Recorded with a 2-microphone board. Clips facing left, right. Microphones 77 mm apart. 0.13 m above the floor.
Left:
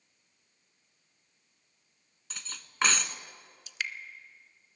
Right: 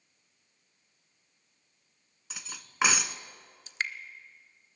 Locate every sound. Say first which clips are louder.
2.3 s cutlery clinking: right 1 dB; 10° right (ahead or behind), 0.8 m
3.7 s dripping: right 3 dB; 35° right (ahead or behind), 0.8 m